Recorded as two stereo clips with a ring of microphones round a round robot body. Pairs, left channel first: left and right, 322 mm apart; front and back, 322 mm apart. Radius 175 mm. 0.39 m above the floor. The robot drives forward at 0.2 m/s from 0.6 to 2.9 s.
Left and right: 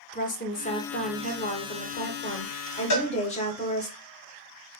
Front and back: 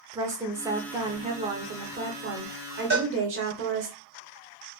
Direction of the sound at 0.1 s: 110° left.